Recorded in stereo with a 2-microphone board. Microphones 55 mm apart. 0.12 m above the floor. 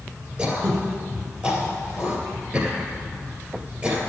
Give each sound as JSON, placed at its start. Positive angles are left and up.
{"t": 0.4, "sound": "throat clearing", "side_deg": -25, "distance_m": 2.5}